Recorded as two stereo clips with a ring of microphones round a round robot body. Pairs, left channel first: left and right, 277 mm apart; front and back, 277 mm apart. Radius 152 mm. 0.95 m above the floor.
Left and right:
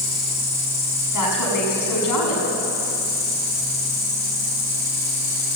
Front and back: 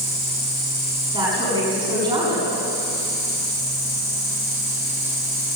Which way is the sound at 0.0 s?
90° left.